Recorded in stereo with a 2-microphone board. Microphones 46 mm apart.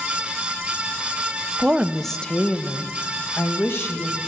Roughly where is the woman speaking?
Right.